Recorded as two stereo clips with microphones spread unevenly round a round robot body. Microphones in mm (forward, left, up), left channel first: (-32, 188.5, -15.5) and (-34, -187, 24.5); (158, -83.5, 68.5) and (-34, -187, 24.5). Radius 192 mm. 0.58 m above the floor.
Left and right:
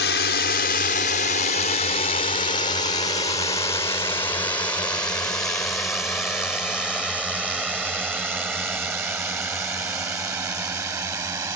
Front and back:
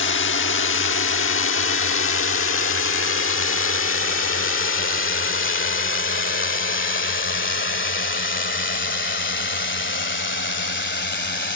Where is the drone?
40° left; by 11.6 s 10° right.